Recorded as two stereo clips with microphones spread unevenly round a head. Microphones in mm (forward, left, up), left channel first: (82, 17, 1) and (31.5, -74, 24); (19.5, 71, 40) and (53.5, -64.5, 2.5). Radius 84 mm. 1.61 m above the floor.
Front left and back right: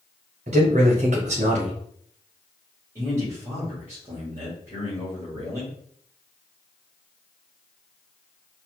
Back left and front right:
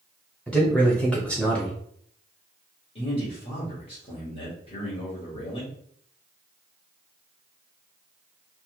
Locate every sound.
0.5 s a man speaking: 170° right, 0.8 m
3.0 s a man speaking: 165° left, 1.5 m